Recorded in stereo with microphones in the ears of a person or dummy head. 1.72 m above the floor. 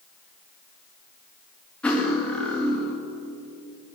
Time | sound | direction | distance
1.8 | cutlery clinking | 10° left (ahead or behind) | 1.7 m